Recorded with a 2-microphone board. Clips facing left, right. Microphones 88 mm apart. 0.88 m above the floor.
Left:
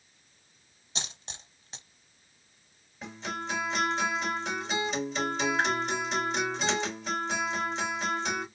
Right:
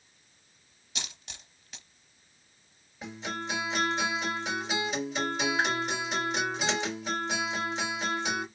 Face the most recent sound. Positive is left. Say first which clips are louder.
# even
turn(degrees=-5)  # may be behind; listen again after turning